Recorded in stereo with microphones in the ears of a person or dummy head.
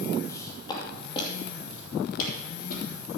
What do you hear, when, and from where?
0.3 s footsteps: 20° left (ahead or behind), 2.5 m; by 2.9 s 50° left (ahead or behind), 3.5 m